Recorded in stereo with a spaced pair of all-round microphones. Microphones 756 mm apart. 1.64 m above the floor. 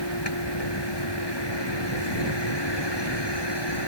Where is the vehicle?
30° left (ahead or behind).